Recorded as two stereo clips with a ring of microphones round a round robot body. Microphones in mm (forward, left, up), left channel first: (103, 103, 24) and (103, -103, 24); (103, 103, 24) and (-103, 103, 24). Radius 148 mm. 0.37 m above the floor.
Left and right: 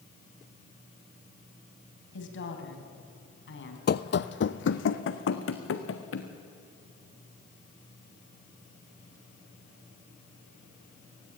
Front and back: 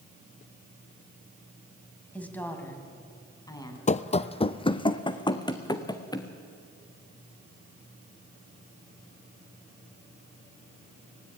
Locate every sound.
2.1 s a woman speaking: 85° left, 3.5 m; by 3.8 s 70° left, 4 m
3.9 s running footsteps: 55° left, 0.7 m; by 6.3 s 70° left, 2.5 m